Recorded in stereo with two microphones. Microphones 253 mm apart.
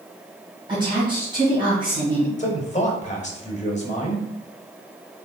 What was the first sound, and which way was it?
A woman speaking, 20° right (ahead or behind).